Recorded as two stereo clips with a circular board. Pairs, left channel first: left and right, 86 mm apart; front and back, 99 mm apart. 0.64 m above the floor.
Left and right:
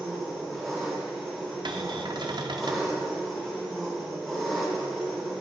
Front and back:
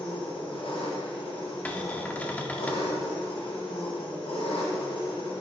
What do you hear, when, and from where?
0.0 s an engine running: straight ahead, 2 m
1.6 s a cupboard door: 75° right, 0.6 m